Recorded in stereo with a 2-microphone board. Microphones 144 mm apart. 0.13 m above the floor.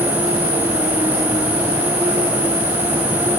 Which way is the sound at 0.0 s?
65° right (ahead or behind).